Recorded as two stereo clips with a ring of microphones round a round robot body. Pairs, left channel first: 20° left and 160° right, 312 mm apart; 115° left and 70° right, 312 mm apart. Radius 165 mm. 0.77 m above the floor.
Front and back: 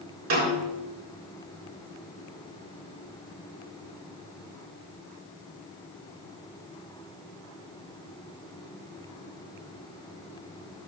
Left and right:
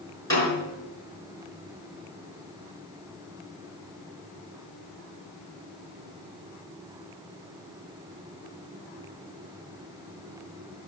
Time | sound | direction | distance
0.3 | a snare drum | 170° right | 7 m